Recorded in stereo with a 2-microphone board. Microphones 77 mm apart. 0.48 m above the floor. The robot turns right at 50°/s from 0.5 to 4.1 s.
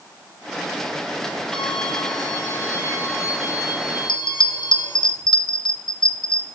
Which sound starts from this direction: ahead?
A violin, at 1.5 s.